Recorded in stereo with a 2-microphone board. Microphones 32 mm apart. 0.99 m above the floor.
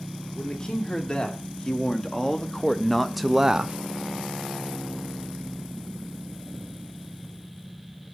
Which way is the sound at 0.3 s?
35° left (ahead or behind).